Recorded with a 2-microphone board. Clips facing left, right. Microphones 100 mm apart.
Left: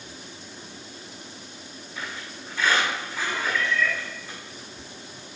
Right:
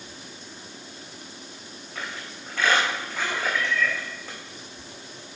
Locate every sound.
1.9 s a squeak: 60° right (ahead or behind), 3.5 m
3.5 s a cat meowing: 15° right (ahead or behind), 1.8 m